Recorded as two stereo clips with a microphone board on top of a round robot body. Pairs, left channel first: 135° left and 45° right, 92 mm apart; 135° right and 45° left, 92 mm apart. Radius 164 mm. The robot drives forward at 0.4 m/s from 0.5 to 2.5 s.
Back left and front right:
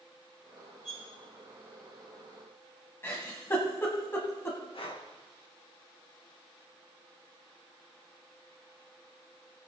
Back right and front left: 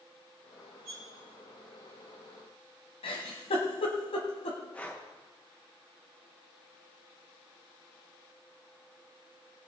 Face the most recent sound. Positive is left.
turn(degrees=150)